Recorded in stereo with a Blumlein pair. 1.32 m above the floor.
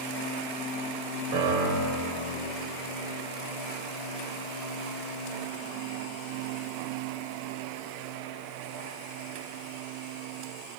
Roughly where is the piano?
Ahead right.